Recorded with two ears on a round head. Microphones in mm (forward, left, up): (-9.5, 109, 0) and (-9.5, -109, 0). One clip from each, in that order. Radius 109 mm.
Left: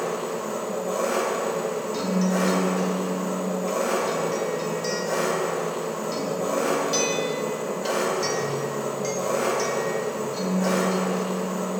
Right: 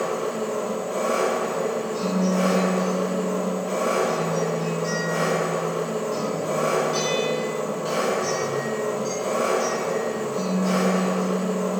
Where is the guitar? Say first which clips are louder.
Right 1 dB; 65° left (ahead or behind), 1.3 m.